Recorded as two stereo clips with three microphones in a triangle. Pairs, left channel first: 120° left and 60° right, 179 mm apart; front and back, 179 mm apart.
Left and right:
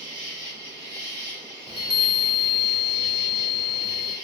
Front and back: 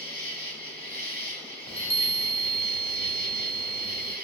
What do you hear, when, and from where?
0.0 s an insect: straight behind, 1.5 m
1.7 s a chime: 15° right, 0.7 m